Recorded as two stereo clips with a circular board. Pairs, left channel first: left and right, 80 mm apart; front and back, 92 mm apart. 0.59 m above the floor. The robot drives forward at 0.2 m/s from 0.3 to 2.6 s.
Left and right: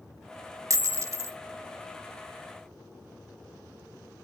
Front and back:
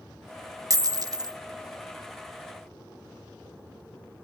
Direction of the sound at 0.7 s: 135° right.